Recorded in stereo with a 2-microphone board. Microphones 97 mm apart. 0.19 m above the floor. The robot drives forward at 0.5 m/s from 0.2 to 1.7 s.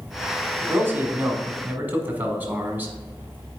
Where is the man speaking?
20° right (ahead or behind), 1.0 m.